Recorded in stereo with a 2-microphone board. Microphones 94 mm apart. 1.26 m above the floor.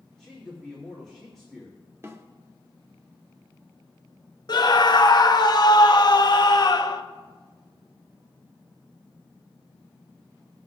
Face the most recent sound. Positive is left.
turn(degrees=50)  # may be behind; listen again after turning